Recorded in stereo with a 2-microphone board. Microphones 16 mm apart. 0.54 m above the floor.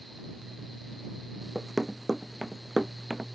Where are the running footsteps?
5° left (ahead or behind); by 3.3 s 20° right (ahead or behind).